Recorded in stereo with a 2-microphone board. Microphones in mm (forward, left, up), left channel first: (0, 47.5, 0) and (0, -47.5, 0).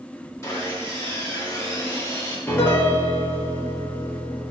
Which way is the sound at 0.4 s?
30° left (ahead or behind).